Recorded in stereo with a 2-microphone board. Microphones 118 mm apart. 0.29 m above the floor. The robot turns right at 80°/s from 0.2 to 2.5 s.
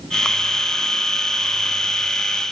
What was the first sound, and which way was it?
Only background noise.